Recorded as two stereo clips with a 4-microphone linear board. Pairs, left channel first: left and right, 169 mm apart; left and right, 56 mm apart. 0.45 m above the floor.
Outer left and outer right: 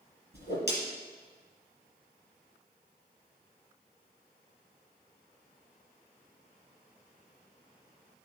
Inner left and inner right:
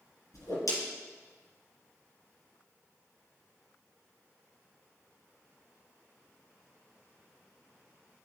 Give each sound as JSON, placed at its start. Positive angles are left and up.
{"t": 0.3, "sound": "a whoosh", "side_deg": 85, "distance_m": 3.0}